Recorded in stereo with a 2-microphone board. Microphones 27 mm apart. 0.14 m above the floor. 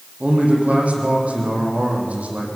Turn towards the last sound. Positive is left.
turn(degrees=-55)  # may be behind; listen again after turning